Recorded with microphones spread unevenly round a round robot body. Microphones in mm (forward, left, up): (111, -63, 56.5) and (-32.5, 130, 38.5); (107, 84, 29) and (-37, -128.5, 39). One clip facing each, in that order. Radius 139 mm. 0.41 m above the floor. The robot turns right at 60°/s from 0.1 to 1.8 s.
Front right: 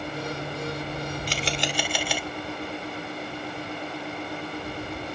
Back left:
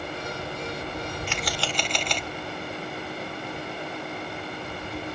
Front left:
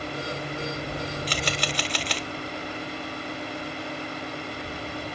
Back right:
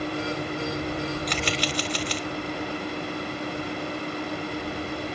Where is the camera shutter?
5° right; by 2.3 s 30° left.